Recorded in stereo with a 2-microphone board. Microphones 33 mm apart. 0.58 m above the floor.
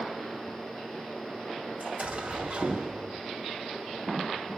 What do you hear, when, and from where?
1.8 s an explosion: 50° right (ahead or behind), 3.5 m